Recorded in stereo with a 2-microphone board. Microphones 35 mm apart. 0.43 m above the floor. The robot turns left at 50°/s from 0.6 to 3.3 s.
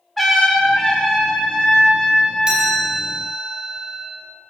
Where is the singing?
No singing in this recording.